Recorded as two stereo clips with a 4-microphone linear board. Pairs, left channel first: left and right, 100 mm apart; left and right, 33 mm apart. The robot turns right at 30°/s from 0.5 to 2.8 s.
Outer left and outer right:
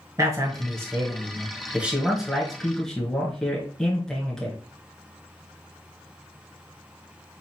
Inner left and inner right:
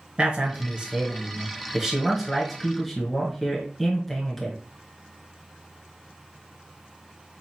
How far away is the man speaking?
About 1.6 m.